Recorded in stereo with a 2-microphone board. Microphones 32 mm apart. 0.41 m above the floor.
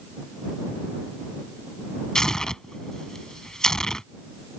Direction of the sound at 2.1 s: 20° left (ahead or behind).